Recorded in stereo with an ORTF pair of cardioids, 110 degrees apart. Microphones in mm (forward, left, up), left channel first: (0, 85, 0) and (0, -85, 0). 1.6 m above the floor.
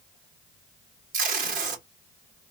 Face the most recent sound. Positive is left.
turn(degrees=-55)